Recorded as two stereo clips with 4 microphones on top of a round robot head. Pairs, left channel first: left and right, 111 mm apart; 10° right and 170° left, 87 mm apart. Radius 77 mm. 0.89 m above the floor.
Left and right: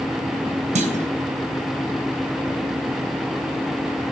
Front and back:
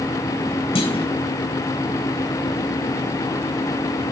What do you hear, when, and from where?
0.8 s a clunk: 55° right, 3.5 m